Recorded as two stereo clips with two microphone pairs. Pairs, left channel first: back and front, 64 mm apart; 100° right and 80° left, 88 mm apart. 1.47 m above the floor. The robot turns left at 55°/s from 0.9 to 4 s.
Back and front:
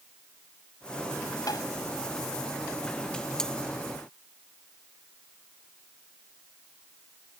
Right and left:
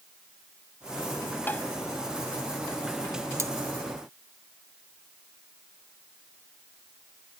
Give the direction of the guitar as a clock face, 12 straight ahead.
I don't hear a guitar.